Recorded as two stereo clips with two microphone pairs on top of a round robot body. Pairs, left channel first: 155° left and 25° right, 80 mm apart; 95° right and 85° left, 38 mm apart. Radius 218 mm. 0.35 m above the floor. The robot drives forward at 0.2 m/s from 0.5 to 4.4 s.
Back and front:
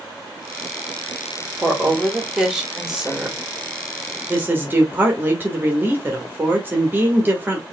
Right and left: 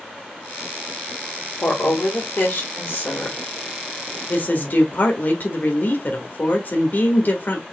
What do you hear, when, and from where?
1.6 s a woman speaking: 100° right, 2.5 m; by 3.4 s 110° right, 2.5 m
4.3 s a woman speaking: 85° right, 1.7 m